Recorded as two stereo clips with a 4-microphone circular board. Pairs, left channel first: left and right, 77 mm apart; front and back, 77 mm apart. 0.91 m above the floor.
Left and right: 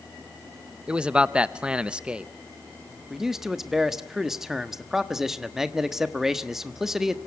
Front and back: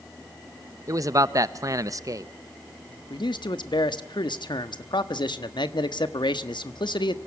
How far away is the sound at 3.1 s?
About 1.2 m.